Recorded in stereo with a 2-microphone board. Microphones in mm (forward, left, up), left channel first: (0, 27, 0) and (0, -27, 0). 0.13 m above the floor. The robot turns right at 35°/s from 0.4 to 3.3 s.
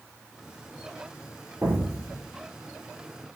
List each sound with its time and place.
1.6 s an explosion: 35° right (ahead or behind), 2 m; by 2.3 s 60° right (ahead or behind), 2 m